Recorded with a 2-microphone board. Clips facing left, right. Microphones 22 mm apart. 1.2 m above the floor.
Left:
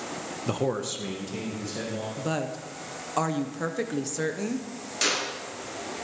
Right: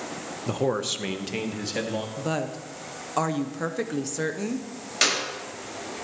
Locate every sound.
0.5 s a man speaking: 15° left (ahead or behind), 0.5 m; by 2.1 s 55° right (ahead or behind), 2 m
2.2 s a woman speaking: centre (ahead or behind), 0.6 m
5.0 s a clap: 35° right (ahead or behind), 5 m